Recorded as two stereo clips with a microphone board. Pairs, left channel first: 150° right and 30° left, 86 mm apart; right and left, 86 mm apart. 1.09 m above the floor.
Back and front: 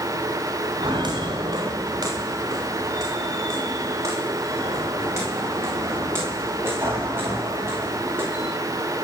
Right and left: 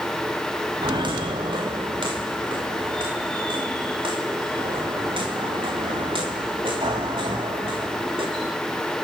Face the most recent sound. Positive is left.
turn(degrees=95)